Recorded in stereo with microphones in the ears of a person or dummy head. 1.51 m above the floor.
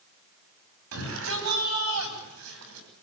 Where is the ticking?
No ticking in this recording.